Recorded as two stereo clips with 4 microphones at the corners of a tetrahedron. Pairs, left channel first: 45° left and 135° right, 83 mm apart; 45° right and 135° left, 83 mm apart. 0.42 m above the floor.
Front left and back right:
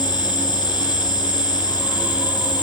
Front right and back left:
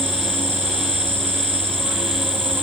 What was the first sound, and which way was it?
An insect, 70° left.